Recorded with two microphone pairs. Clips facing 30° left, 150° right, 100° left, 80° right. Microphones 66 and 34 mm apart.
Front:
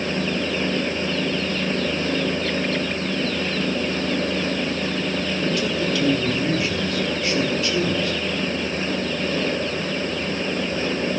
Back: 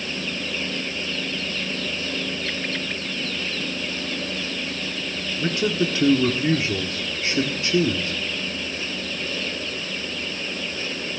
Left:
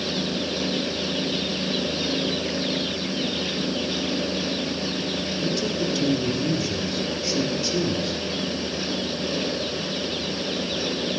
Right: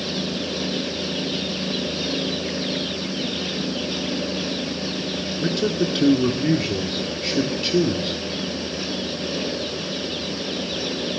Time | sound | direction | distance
5.4 | a man speaking | 100° right | 1.6 m